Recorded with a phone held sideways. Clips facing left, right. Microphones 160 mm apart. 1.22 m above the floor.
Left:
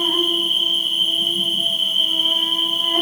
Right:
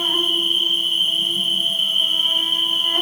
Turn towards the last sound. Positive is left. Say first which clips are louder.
# left 3 dB
turn(degrees=30)  # may be behind; listen again after turning